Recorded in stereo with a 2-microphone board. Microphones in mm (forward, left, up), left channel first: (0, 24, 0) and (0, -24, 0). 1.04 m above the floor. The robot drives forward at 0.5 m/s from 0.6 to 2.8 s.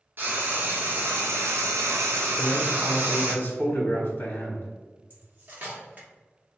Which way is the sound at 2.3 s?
50° left (ahead or behind).